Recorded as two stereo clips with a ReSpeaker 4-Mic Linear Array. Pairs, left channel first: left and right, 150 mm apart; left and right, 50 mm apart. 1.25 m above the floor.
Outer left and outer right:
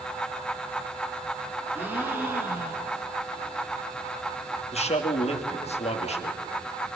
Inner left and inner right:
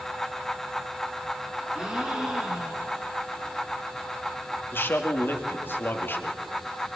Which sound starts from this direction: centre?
A gasp, at 1.7 s.